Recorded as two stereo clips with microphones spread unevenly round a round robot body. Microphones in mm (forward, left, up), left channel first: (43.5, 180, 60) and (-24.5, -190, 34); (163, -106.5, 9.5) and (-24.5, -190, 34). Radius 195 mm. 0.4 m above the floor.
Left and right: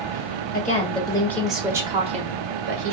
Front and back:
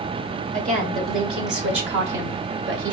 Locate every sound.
0.5 s a woman speaking: 145° left, 1.5 m; by 3.0 s 145° right, 1.5 m